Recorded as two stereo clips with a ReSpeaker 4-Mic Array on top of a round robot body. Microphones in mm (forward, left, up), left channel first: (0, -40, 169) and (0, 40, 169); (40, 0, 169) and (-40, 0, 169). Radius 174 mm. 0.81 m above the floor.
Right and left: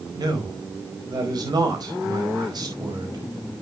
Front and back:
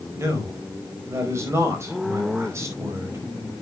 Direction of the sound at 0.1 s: 125° left.